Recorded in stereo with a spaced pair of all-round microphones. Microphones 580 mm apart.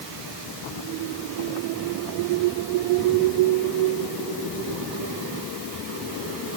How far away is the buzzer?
I don't hear a buzzer.